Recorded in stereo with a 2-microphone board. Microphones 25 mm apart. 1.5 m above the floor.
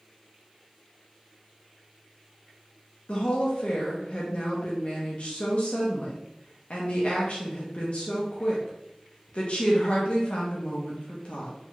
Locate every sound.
3.1 s a woman speaking: 50° left (ahead or behind), 0.7 m